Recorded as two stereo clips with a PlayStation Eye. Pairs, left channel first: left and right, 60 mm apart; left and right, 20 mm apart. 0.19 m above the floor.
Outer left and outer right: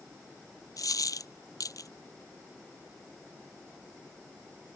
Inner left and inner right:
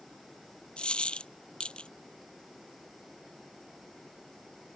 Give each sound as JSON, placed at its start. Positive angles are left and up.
{"t": 0.8, "sound": "a dropped coin", "side_deg": 70}